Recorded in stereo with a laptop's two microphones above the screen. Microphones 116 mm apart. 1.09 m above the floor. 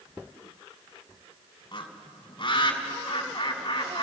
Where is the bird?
45° left (ahead or behind), 2.5 m.